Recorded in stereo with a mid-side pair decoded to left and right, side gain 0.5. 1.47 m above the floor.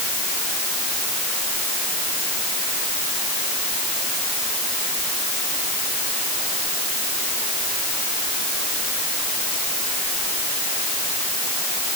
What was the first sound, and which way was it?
Only background noise.